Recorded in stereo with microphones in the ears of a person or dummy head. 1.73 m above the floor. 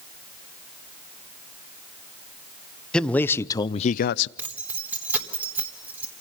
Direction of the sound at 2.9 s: 5° left (ahead or behind).